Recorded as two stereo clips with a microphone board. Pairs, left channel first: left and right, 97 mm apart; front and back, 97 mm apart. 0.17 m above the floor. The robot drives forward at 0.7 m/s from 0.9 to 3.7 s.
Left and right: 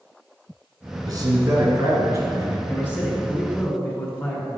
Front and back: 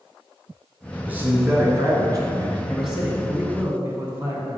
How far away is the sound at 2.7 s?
About 1.4 m.